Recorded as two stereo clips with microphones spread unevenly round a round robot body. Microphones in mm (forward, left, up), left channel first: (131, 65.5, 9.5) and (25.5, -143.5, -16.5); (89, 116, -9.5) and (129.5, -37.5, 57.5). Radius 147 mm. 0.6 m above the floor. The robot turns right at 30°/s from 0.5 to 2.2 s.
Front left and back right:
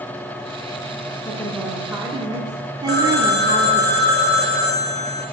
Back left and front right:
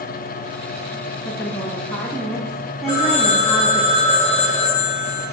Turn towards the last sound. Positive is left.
turn(degrees=-170)